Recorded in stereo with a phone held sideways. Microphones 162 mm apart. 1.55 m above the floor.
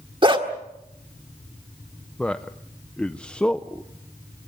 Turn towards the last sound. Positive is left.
turn(degrees=5)  # may be behind; listen again after turning